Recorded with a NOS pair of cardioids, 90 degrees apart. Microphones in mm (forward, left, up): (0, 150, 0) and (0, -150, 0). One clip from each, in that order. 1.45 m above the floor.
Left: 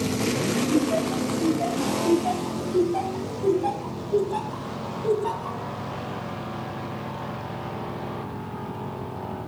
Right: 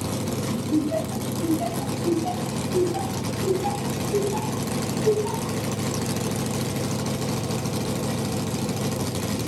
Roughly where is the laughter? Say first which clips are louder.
Right 1 dB; ahead.